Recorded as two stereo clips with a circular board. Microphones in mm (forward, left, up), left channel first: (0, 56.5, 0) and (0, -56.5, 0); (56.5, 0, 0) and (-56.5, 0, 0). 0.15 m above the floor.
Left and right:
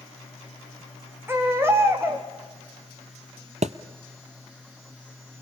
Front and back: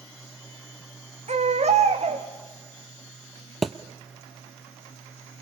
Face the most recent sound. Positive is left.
turn(degrees=-90)